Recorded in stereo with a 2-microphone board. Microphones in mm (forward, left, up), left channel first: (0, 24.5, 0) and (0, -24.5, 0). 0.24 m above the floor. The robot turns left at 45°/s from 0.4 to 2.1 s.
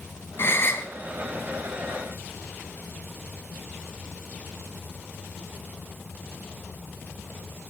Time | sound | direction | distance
0.4 | a gasp | 55° left (ahead or behind) | 2 m